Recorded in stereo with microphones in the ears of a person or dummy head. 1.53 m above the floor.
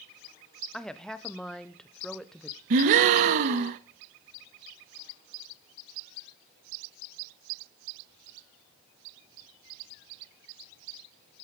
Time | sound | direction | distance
0.7 | a woman speaking | 5° right (ahead or behind) | 0.8 m
2.7 | a gasp | 45° right (ahead or behind) | 1.0 m